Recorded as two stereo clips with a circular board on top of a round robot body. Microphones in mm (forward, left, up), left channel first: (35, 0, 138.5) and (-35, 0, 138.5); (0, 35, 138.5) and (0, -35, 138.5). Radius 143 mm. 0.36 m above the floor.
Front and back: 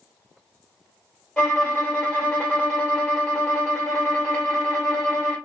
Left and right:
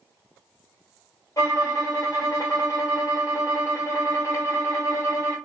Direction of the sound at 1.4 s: 70° left.